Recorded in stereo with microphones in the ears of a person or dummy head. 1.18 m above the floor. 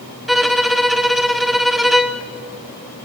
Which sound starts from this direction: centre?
A violin, at 0.3 s.